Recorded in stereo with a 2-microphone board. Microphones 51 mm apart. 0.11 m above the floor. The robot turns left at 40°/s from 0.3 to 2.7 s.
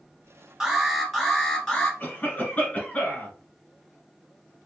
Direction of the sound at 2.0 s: 25° left (ahead or behind).